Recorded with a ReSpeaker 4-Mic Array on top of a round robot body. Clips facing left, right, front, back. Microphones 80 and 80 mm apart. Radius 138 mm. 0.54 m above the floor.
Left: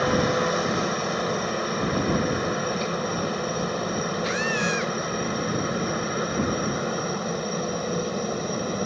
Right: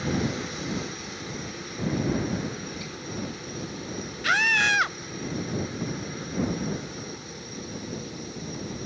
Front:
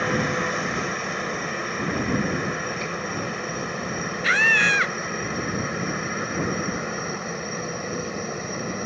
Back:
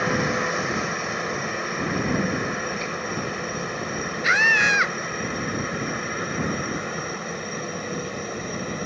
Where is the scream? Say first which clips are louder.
Right 6 dB, back 1 dB; 105° right.